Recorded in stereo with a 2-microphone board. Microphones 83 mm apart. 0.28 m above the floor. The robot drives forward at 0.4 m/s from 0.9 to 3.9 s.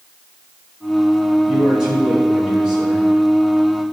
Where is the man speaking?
10° right (ahead or behind), 3.5 m; by 3.1 s 5° right (ahead or behind), 4 m.